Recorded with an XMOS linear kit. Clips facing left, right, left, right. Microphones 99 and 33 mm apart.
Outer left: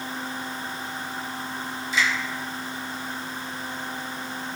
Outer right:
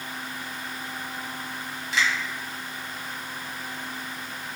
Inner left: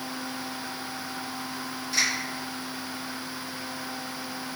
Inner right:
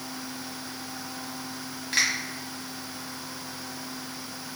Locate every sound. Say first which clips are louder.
1.9 s a finger snap: outer left 1 dB, inner right 1 dB; 80° right, 1.8 m